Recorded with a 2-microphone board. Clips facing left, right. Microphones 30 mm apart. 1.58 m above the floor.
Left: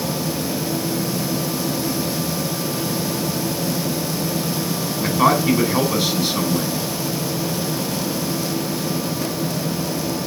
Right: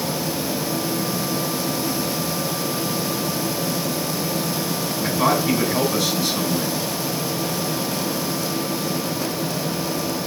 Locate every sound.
5.0 s a man speaking: 40° left (ahead or behind), 3.5 m